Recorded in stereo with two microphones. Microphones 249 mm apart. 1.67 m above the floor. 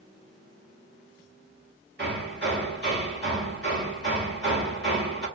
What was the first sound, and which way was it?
Hammering, 45° right (ahead or behind).